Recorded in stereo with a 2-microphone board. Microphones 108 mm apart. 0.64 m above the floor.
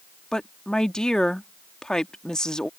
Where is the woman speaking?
5° left (ahead or behind).